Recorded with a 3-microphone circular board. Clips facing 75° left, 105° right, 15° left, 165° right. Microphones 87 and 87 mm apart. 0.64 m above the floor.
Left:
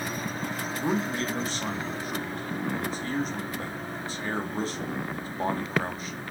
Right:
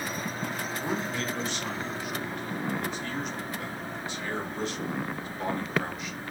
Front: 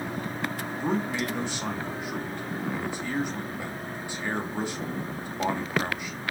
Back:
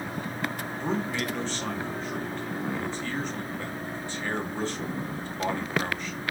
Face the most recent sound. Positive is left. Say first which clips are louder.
# left 6 dB, front 3 dB
turn(degrees=80)